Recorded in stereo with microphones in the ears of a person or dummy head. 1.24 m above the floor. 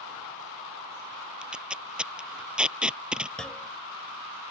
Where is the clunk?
5° left (ahead or behind).